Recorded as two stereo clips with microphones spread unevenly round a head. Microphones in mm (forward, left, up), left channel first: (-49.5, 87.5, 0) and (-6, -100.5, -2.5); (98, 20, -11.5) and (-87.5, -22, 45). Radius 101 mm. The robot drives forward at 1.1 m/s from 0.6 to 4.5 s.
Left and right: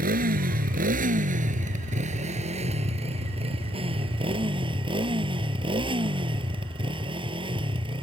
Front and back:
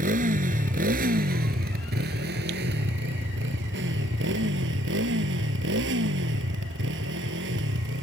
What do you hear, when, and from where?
0.0 s a motorcycle: 120° right; by 8.1 s 140° right